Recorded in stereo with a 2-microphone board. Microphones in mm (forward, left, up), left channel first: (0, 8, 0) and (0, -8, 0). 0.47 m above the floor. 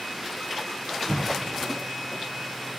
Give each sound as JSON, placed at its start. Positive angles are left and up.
{"t": 1.1, "sound": "an explosion", "side_deg": 35, "distance_m": 4.5}